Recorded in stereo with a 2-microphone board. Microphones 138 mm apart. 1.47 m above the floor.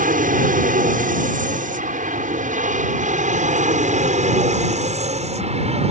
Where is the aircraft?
75° right (ahead or behind); by 5.9 s 50° right (ahead or behind).